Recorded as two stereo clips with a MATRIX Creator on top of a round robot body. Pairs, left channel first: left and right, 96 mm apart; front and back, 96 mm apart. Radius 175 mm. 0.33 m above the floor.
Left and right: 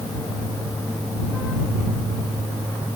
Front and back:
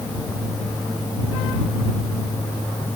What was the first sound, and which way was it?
Only background noise.